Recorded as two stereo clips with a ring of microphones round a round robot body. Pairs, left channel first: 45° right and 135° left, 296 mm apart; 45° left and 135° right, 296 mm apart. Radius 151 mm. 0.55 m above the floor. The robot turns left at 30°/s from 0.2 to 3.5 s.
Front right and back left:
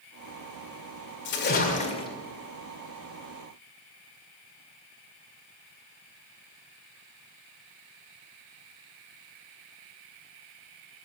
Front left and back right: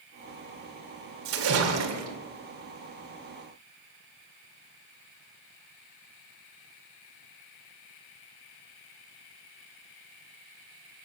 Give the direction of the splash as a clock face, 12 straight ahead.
3 o'clock.